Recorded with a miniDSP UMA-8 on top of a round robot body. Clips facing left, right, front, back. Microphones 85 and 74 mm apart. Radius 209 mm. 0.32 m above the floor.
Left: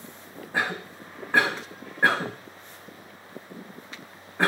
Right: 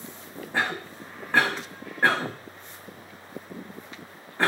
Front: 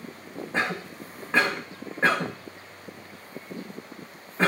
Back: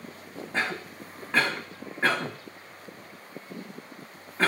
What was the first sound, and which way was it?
A cough, 35° left.